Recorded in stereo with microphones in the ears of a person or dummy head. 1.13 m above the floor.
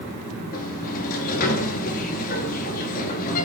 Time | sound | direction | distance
0.5 | a sliding door | 50° left (ahead or behind) | 2.0 m